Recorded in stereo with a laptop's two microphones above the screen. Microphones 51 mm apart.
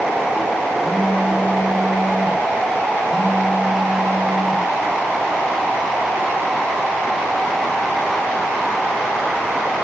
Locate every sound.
0.8 s a phone buzzing: 25° right (ahead or behind), 9 m